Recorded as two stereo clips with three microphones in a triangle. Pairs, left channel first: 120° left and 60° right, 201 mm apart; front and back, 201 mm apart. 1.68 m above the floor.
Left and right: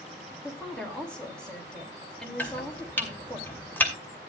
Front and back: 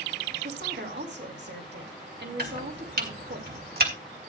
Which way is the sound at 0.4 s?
155° right.